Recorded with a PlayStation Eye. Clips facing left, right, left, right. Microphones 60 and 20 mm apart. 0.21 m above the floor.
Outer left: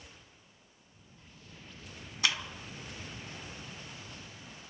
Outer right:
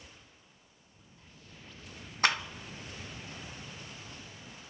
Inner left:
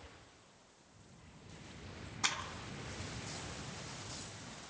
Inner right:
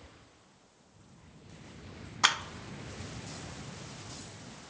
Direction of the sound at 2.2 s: 45° right (ahead or behind).